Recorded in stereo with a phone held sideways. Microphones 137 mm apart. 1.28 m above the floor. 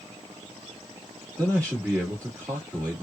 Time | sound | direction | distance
1.4 | a man speaking | 15° right (ahead or behind) | 1.5 m